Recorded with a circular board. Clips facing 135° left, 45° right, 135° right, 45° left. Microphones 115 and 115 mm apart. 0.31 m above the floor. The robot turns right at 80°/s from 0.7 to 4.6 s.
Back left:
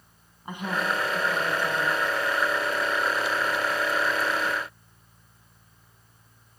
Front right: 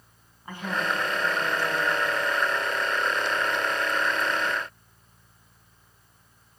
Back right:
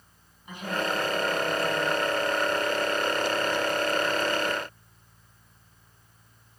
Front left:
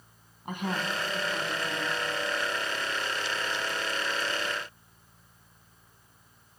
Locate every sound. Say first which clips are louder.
0.5 s a woman speaking: back left 1 dB, back right 2 dB; 65° left, 3 m; by 2.0 s 170° left, 3 m